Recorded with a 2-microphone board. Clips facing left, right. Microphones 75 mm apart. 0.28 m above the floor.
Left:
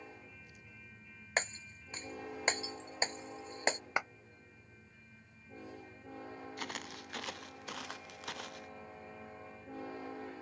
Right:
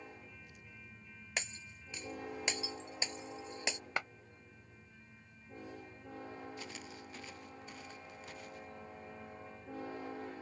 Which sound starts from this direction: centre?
A clap, at 4.0 s.